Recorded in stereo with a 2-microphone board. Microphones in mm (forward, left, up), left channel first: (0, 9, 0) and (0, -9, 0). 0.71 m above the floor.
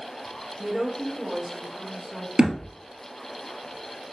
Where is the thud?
65° right (ahead or behind), 1.7 m.